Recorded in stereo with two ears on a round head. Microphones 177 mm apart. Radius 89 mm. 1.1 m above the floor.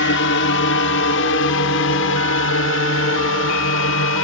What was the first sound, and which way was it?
A drone, 65° left (ahead or behind).